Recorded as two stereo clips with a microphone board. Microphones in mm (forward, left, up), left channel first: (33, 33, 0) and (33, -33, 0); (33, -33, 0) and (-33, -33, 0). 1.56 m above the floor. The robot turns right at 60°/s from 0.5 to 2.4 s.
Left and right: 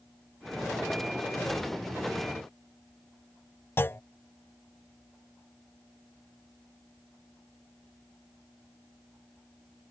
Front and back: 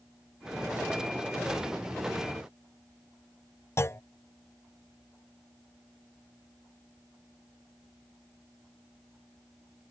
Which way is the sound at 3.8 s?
40° left.